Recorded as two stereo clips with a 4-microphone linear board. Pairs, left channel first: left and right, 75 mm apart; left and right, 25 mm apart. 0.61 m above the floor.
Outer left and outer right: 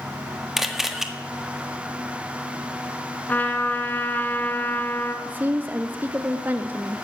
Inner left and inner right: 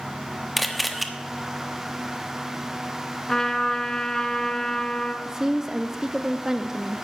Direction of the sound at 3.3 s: 20° left (ahead or behind).